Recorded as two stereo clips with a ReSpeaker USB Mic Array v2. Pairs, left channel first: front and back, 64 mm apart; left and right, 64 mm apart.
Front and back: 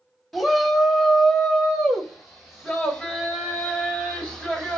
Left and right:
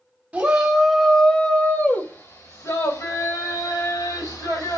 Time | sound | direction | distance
0.3 | a shout | 85° right | 1.1 m